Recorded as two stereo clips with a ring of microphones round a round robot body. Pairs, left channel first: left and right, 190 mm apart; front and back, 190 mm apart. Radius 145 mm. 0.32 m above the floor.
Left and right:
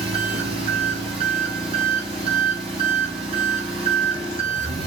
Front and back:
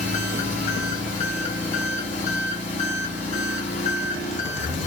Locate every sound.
0.0 s an engine running: 40° right, 1.0 m